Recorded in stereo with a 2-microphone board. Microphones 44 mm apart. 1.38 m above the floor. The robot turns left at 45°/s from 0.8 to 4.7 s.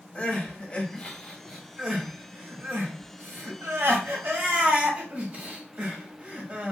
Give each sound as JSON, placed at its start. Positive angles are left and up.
{"t": 0.1, "sound": "crying", "side_deg": 20, "distance_m": 1.3}